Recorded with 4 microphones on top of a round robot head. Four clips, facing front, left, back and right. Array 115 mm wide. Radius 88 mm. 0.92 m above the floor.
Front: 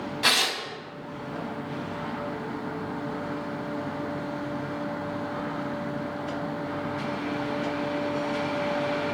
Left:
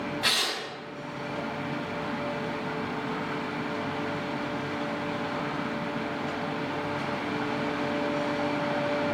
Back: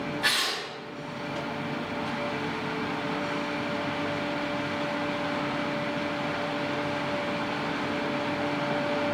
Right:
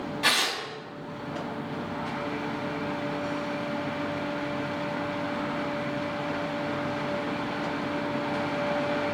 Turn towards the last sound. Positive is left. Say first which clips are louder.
# right 3 dB, front 7 dB
turn(degrees=0)